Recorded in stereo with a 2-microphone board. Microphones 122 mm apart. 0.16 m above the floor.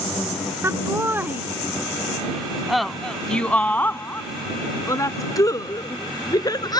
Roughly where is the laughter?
Right.